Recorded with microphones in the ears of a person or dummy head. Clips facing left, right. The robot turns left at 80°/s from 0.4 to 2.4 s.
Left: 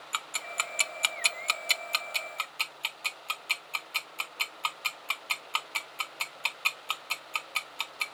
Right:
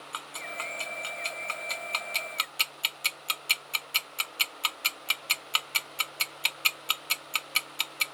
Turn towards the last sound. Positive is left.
turn(degrees=-20)  # may be behind; listen again after turning